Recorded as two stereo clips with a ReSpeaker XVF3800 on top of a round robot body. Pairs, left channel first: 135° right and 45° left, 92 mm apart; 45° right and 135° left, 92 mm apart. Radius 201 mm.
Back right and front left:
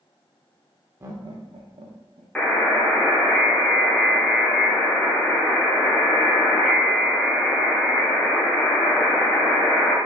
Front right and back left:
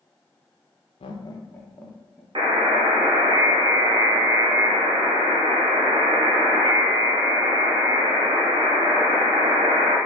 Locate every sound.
1.0 s laughter: 20° right, 0.5 m; by 2.2 s 45° left, 1.2 m
2.4 s a buzzer: 150° left, 1.4 m